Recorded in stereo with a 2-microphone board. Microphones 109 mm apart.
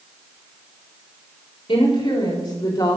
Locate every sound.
1.7 s a woman speaking: 55° left (ahead or behind), 4 m; by 3.0 s 40° left (ahead or behind), 4 m